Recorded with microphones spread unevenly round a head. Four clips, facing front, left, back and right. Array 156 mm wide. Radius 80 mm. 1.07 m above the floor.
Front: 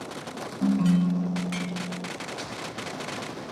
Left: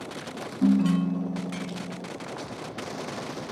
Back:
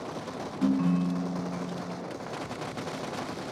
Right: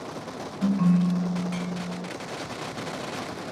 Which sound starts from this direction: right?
A ringtone, at 0.6 s.